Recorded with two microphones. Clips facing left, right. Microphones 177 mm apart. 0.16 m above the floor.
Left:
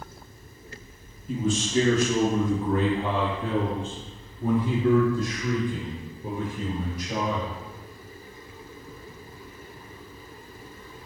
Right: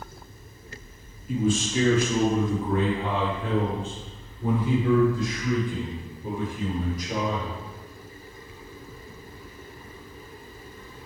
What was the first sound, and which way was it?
A man speaking, 40° left (ahead or behind).